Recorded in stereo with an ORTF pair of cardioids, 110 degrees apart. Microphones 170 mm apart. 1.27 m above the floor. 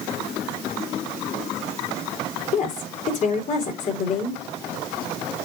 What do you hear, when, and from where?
2.5 s a woman speaking: 45° left, 4.5 m